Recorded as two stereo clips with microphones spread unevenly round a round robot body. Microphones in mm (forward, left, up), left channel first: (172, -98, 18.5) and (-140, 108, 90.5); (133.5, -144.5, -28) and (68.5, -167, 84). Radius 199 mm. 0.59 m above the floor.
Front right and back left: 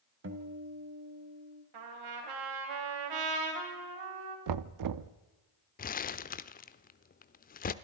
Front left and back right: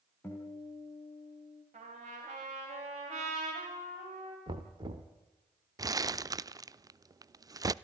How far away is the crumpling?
About 0.7 m.